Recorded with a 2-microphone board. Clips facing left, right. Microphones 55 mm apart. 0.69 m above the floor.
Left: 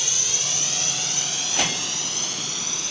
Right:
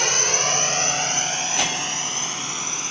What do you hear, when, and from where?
0.0 s a drone: 50° right (ahead or behind); by 2.9 s 30° right (ahead or behind)